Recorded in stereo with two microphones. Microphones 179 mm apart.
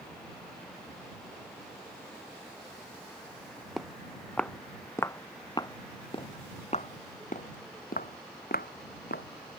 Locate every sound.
3.8 s footsteps: centre (ahead or behind); by 9.2 s 65° left (ahead or behind)